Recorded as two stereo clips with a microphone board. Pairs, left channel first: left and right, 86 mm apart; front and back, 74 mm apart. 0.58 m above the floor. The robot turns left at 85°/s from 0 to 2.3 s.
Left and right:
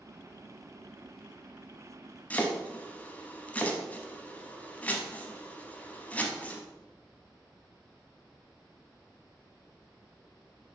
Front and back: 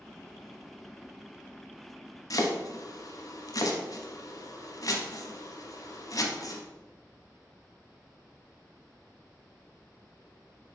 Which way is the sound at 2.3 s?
20° left.